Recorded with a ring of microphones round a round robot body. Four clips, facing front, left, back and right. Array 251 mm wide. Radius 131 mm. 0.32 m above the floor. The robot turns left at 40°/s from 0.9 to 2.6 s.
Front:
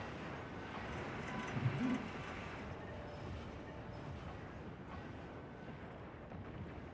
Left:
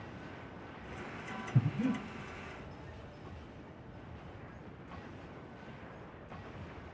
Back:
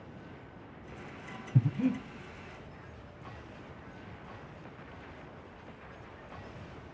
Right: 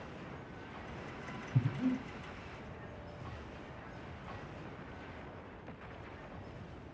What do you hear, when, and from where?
1.6 s breathing: 170° left, 1.5 m; by 2.0 s 155° left, 1.5 m